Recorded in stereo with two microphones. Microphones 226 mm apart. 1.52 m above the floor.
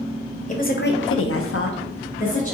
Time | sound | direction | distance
0.5 | a woman speaking | 35° left (ahead or behind) | 0.7 m